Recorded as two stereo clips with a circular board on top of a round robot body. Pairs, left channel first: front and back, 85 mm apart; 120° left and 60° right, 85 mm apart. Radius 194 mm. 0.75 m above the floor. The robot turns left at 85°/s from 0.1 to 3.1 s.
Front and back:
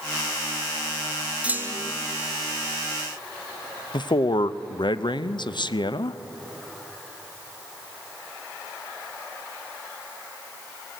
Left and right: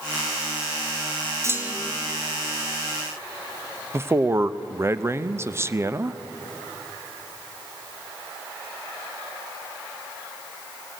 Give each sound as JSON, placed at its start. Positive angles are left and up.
{"t": 1.4, "sound": "a clunk", "azimuth_deg": -110, "distance_m": 1.6}
{"t": 3.9, "sound": "a man speaking", "azimuth_deg": -5, "distance_m": 0.9}